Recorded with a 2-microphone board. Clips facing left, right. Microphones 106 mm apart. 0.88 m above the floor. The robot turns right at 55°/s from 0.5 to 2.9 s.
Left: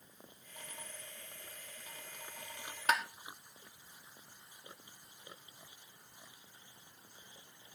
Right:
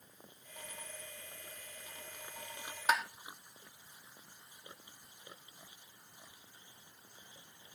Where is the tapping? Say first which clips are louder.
Right 1 dB; 10° right (ahead or behind), 0.9 m; by 3.0 s 5° right (ahead or behind), 0.9 m.